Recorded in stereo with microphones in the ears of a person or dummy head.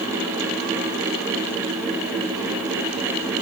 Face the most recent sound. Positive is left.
No sound to turn to.